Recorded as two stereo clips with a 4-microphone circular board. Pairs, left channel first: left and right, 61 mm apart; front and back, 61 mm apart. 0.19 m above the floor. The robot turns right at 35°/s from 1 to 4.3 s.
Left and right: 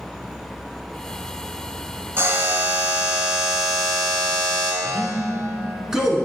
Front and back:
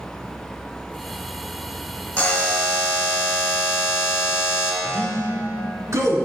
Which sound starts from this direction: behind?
A man speaking, at 4.8 s.